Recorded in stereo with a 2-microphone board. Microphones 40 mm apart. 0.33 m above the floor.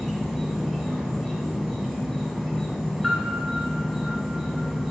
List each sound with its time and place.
0.0 s an insect: centre (ahead or behind), 1.9 m
3.0 s a piano: 10° right (ahead or behind), 2 m